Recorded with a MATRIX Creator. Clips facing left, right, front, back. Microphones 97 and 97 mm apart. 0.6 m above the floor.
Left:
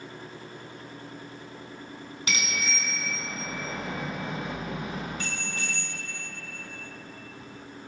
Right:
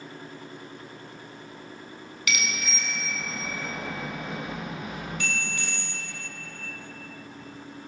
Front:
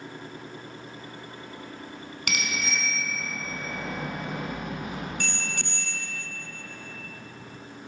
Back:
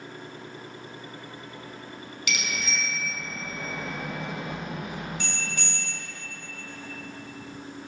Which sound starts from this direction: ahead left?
A bicycle bell, at 2.3 s.